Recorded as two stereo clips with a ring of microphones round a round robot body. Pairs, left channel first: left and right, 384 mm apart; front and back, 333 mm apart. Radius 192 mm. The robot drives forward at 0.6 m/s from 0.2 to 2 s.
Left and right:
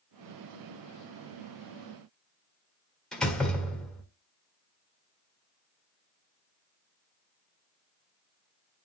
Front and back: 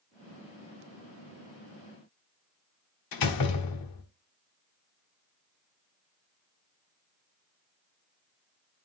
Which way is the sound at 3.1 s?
Straight ahead.